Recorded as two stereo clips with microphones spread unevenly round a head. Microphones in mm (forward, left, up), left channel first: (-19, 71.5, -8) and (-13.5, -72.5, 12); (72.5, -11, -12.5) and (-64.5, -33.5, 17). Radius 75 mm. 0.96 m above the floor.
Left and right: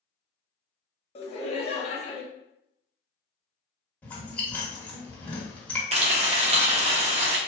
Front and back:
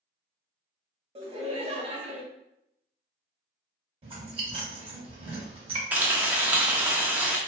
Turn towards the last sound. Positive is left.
turn(degrees=-105)